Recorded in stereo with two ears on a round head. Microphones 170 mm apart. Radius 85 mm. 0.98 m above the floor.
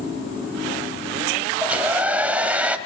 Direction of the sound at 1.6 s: 10° right (ahead or behind).